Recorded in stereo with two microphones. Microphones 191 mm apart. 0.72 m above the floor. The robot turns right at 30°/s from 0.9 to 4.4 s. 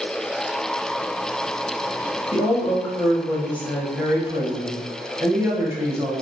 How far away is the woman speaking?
About 0.8 m.